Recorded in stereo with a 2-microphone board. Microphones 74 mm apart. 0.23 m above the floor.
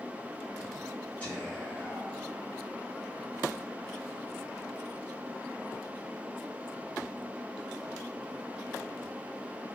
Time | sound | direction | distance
1.2 | whispering | 25° left (ahead or behind) | 1.6 m